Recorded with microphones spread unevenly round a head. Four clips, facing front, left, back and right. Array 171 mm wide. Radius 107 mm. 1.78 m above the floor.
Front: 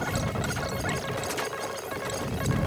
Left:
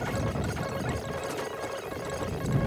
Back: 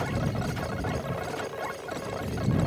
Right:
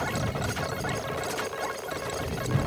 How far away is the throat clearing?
I don't hear throat clearing.